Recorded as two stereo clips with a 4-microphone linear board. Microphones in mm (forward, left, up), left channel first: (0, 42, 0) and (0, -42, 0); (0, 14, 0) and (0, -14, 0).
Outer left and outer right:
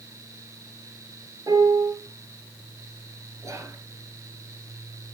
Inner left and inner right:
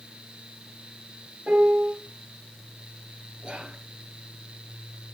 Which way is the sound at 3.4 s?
40° right (ahead or behind).